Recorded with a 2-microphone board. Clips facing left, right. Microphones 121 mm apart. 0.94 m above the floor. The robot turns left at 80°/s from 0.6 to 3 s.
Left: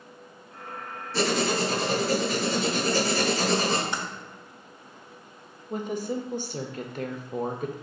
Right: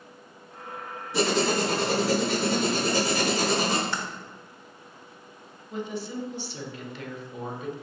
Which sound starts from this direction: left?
A woman speaking, at 5.7 s.